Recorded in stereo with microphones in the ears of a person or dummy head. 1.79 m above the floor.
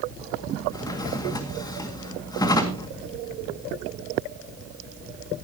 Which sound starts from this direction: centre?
A drawer, at 0.7 s.